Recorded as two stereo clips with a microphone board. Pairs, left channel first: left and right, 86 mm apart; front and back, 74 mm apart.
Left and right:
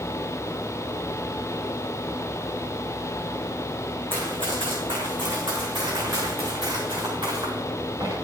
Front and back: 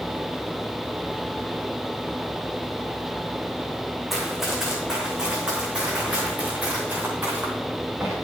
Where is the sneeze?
No sneeze in this recording.